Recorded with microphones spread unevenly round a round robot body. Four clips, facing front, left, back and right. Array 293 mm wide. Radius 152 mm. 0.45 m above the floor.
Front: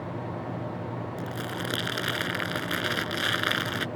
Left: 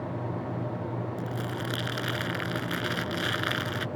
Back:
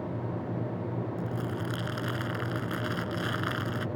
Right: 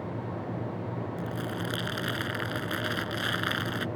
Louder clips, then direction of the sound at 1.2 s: Even, even; 5° right.